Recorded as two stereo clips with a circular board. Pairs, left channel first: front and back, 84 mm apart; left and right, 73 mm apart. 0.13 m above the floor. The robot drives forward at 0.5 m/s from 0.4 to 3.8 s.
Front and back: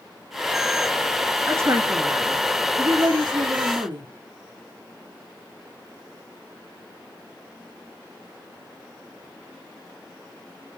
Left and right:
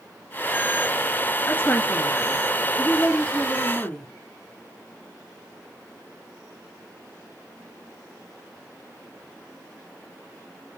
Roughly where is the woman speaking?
Behind left.